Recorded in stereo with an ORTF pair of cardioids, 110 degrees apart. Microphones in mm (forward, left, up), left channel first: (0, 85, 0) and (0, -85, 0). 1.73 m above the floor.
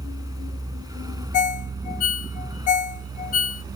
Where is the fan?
25° right.